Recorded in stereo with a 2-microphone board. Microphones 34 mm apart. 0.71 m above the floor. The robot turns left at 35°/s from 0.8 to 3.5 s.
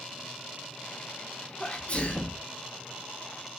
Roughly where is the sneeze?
Left.